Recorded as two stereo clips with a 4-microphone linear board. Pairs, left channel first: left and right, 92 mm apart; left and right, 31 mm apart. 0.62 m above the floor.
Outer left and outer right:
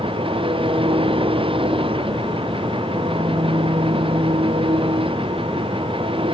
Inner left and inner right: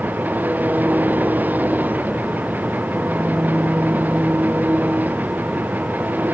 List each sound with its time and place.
0.0 s an engine running: 80° right